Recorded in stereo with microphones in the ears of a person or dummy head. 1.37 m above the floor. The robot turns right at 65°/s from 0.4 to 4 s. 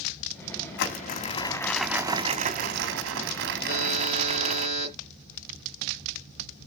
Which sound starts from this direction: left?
A buzzer, at 3.7 s.